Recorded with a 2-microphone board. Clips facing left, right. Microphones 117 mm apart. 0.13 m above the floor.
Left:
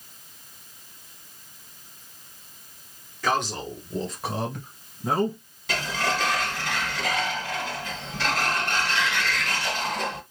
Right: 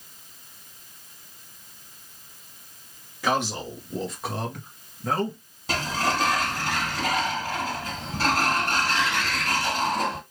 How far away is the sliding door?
About 1.4 m.